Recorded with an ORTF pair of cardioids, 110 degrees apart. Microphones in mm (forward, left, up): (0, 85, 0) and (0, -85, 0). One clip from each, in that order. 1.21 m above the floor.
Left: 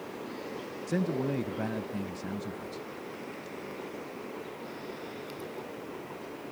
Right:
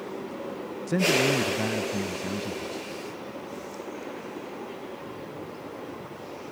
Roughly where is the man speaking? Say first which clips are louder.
Right 9 dB; ahead.